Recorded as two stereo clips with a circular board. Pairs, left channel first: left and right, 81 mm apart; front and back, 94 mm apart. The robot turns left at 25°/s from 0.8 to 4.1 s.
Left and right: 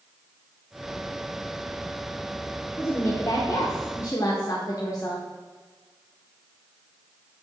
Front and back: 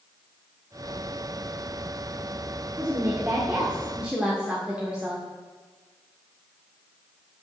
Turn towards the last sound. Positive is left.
turn(degrees=105)